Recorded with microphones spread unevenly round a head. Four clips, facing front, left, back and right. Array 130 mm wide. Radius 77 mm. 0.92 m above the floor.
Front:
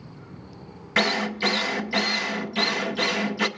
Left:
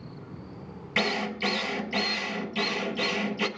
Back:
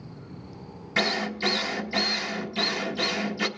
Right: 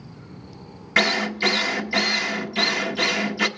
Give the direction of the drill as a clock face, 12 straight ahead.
1 o'clock.